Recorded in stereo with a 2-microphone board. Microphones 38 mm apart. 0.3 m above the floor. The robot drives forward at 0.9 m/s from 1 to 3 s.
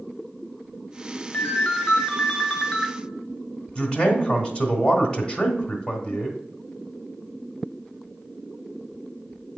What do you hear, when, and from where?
1.3 s a ringtone: 35° left (ahead or behind), 0.7 m; by 2.9 s 15° left (ahead or behind), 1.5 m
3.8 s a man speaking: 20° left (ahead or behind), 1.2 m